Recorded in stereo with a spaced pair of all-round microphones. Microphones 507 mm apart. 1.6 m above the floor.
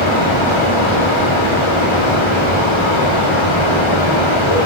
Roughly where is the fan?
Left.